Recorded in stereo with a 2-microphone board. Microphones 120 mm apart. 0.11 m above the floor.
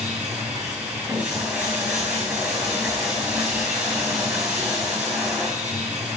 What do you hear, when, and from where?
0.0 s running water: 10° right (ahead or behind), 7 m